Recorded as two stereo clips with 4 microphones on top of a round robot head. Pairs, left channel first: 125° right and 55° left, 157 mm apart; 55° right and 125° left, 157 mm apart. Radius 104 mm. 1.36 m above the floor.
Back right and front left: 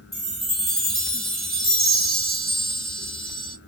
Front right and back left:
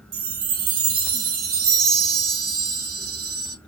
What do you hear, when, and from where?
0.1 s a chime: 145° left, 1.1 m